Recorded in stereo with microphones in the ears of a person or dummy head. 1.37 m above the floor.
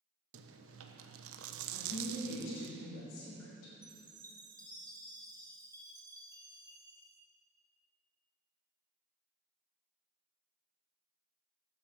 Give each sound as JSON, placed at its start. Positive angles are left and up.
{"t": 0.3, "sound": "chewing", "side_deg": -75, "distance_m": 1.0}
{"t": 1.7, "sound": "a woman speaking", "side_deg": 80, "distance_m": 4.5}
{"t": 3.8, "sound": "a chime", "side_deg": -20, "distance_m": 0.9}